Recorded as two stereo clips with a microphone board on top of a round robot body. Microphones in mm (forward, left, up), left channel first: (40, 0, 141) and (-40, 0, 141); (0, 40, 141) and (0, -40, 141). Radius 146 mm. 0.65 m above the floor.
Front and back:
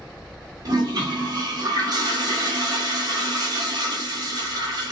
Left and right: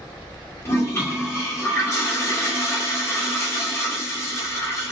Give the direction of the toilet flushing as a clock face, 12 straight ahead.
7 o'clock.